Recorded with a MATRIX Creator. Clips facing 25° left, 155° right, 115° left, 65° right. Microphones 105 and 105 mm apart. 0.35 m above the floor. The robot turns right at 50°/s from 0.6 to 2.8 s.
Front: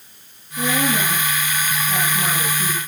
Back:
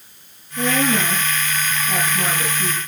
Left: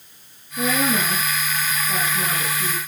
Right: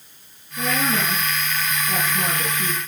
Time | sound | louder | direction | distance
0.6 | a woman speaking | back 2 dB, left 2 dB | 165° right | 5.5 m